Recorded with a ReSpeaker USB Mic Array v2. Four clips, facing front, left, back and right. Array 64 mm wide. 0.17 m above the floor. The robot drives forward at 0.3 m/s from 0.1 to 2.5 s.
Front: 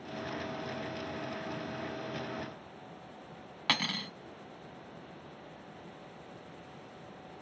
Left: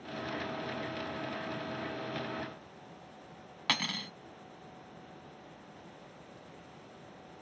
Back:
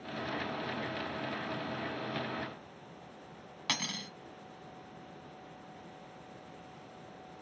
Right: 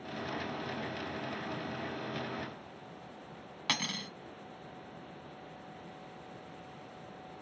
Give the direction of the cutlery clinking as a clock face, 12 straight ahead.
11 o'clock.